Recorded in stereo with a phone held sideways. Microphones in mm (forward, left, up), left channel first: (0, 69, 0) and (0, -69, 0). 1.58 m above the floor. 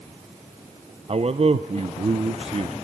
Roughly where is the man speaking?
Right.